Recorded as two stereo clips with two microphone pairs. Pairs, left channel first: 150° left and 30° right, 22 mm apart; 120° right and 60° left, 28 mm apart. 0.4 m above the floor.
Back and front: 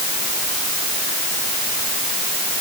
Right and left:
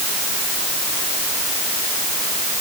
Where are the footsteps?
No footsteps in this recording.